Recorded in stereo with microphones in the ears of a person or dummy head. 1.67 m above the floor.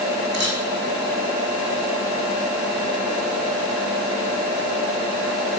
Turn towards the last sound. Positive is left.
turn(degrees=-60)  # may be behind; listen again after turning